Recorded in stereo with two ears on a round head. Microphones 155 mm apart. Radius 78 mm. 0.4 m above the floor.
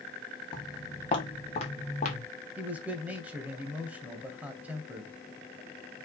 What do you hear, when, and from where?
0.5 s footsteps: 25° left (ahead or behind), 3.5 m; by 2.2 s 45° left (ahead or behind), 3 m
2.6 s a man speaking: 10° right (ahead or behind), 2.5 m